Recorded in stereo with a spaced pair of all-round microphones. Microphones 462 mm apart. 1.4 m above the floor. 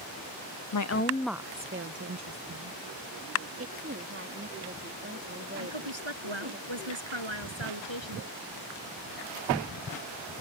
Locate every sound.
0.7 s a woman speaking: 50° left (ahead or behind); by 2.8 s 45° right (ahead or behind)
3.6 s a woman speaking: 25° right (ahead or behind)
5.6 s a woman speaking: 75° right (ahead or behind)